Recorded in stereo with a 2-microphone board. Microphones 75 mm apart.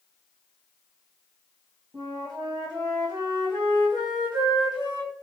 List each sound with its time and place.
1.9 s a flute: 85° right, 2 m